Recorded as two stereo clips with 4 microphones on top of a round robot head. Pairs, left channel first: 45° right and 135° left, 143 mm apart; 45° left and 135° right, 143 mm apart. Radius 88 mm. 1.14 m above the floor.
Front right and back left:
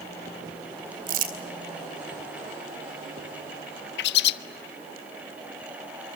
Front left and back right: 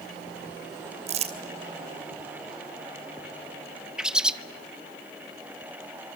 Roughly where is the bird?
Ahead right.